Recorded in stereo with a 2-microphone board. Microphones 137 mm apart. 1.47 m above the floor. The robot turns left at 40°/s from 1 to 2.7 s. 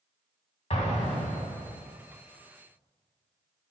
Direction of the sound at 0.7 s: 125° left.